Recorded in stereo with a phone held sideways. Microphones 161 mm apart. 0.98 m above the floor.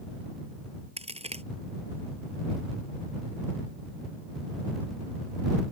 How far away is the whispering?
I don't hear whispering.